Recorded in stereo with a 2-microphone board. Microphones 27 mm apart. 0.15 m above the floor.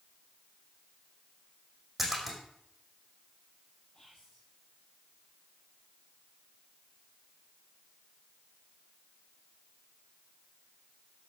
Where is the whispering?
25° left (ahead or behind), 6 m.